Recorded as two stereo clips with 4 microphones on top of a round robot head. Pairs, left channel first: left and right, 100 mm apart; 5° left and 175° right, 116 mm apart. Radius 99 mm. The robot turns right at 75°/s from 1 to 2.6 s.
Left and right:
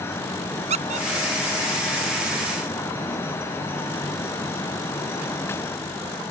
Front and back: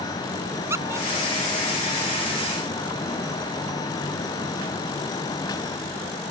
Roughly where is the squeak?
Right.